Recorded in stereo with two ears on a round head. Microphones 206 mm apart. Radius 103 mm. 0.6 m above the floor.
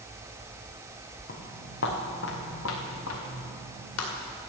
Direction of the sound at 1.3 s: 40° left (ahead or behind).